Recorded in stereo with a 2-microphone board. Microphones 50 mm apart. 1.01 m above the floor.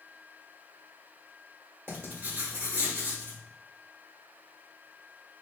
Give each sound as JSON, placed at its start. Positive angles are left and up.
{"t": 1.9, "sound": "writing", "side_deg": -55, "distance_m": 1.6}